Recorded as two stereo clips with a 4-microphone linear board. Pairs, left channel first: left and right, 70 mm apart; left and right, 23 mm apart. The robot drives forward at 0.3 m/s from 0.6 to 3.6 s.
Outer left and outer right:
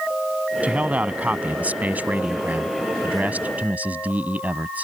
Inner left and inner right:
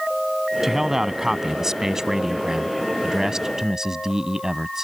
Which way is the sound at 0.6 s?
20° right (ahead or behind).